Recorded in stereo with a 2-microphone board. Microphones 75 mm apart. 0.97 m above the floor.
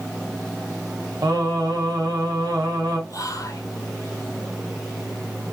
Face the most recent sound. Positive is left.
turn(degrees=45)  # may be behind; listen again after turning